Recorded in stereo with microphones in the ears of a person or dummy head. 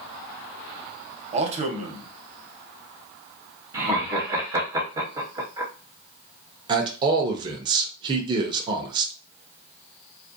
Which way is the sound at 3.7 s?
25° right (ahead or behind).